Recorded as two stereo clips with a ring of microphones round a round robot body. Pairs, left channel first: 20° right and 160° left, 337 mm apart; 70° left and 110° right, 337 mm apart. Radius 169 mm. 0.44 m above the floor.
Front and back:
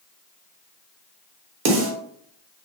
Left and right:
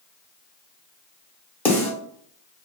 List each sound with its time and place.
1.6 s a snare drum: 150° left, 0.9 m